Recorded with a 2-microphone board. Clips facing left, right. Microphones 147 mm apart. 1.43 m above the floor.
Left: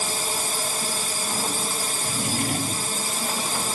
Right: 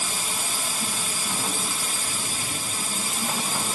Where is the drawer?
55° left (ahead or behind).